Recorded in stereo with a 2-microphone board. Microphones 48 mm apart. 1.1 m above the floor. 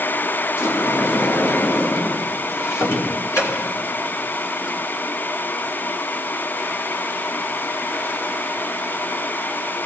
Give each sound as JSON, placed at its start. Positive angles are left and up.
{"t": 0.6, "sound": "a sliding door", "side_deg": 60, "distance_m": 2.5}